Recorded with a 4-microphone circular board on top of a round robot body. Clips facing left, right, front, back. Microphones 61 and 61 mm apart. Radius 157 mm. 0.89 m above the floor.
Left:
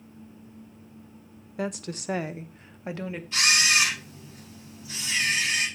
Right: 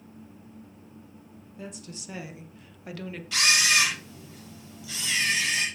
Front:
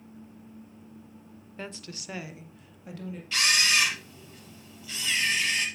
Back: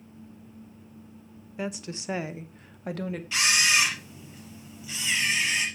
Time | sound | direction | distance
1.6 | a woman speaking | 100° left | 1.1 m
3.3 | a camera shutter | 100° right | 5.5 m